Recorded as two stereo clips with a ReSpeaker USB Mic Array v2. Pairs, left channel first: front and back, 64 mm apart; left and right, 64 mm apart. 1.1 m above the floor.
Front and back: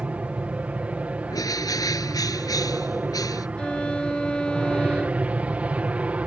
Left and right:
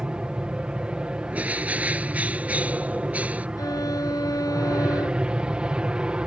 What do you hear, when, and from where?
0.0 s an aircraft: 145° right
1.3 s a bird: 20° right
3.6 s a violin: 75° left